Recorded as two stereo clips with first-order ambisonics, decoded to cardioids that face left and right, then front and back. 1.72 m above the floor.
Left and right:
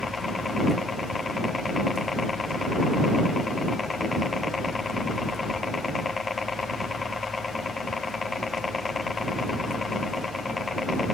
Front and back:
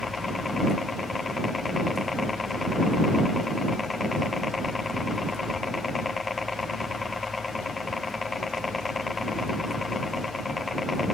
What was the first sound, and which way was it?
A helicopter, 45° left.